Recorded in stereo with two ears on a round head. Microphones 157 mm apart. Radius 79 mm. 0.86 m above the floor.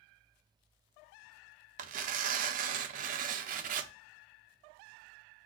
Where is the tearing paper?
50° right (ahead or behind), 0.5 m.